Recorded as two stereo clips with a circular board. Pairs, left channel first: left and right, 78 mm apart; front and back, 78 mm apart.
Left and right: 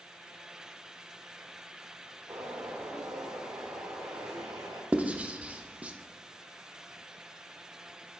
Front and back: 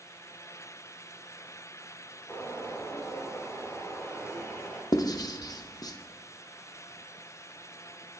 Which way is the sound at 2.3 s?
70° right.